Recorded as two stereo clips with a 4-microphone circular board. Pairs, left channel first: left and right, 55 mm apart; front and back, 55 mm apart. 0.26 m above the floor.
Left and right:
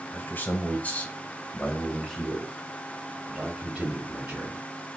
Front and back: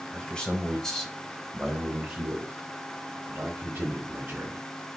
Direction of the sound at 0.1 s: 65° left.